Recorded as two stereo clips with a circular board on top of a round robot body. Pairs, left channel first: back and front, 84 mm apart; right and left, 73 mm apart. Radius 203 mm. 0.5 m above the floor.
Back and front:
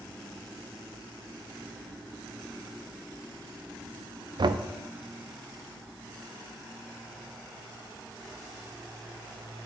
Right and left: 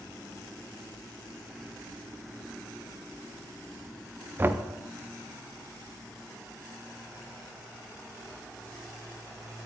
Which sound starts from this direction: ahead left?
Knocking, at 4.4 s.